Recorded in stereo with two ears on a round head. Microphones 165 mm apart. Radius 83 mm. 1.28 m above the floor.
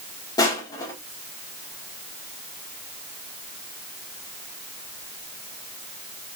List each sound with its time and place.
0.4 s crushing: 20° left (ahead or behind), 1.8 m